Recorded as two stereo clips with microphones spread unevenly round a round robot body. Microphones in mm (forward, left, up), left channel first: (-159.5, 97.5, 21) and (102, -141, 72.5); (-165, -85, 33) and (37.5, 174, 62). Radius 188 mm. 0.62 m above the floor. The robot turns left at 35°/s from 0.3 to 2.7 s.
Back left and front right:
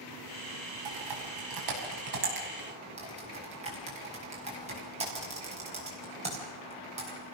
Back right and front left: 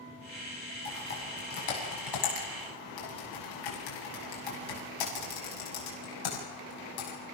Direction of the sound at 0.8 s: 55° right.